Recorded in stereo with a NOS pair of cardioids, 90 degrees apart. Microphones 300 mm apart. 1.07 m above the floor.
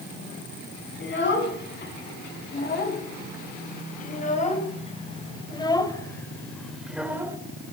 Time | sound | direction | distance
1.0 | a child speaking | 40° left | 7.5 m